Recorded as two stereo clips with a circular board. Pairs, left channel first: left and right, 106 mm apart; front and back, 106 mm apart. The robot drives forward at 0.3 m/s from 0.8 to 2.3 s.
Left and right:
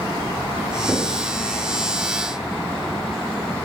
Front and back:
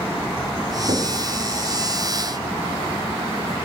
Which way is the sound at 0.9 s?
170° right.